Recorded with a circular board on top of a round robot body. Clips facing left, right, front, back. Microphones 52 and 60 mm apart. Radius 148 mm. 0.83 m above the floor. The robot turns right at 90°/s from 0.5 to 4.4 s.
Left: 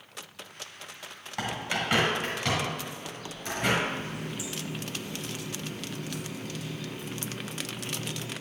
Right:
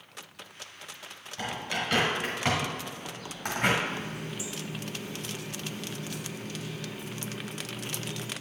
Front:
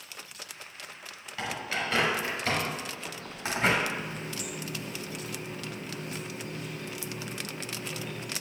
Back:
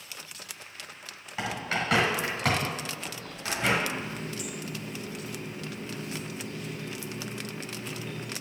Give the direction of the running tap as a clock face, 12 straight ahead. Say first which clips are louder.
Left 1 dB, back 1 dB; 3 o'clock.